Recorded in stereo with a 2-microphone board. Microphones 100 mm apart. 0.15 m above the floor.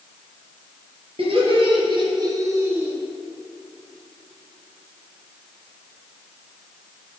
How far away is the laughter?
About 3 m.